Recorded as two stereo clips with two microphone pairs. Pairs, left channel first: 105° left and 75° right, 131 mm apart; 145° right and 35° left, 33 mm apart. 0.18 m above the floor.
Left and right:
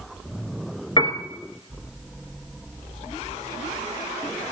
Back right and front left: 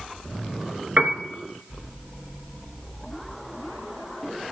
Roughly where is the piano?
Ahead left.